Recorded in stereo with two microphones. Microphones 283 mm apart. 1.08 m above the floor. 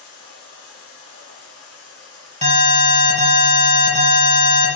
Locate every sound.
0.0 s running water: 50° left (ahead or behind), 1.6 m
2.4 s an alarm: 20° right (ahead or behind), 1.1 m